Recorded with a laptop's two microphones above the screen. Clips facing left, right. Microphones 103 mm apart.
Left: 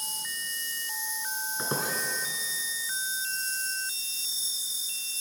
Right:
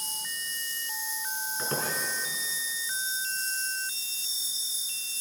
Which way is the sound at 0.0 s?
25° left (ahead or behind).